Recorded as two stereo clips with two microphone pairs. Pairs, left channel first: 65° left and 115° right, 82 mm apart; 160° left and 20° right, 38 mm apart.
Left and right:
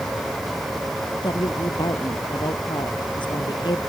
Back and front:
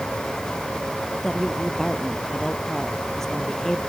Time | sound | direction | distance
1.2 | a woman speaking | 80° left | ?